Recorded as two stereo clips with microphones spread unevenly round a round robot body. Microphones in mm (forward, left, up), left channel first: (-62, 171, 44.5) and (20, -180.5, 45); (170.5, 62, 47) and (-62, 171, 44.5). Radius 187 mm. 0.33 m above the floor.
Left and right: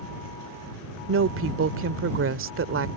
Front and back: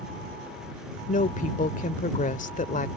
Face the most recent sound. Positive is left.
turn(degrees=-60)